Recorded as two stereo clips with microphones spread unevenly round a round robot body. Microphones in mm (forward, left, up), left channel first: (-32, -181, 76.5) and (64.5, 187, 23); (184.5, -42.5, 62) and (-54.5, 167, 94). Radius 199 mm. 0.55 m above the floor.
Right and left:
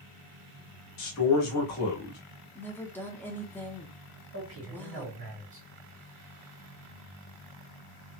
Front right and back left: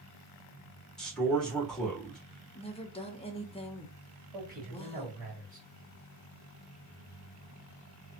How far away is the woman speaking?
About 0.6 m.